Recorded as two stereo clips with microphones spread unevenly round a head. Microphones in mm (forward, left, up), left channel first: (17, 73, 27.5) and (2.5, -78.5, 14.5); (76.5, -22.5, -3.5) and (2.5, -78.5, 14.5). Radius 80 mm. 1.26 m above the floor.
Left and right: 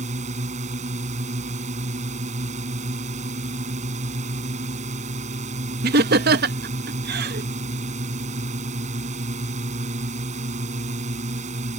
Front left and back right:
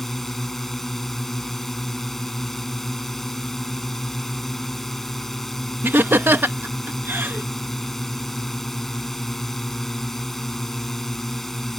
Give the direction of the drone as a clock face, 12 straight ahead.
2 o'clock.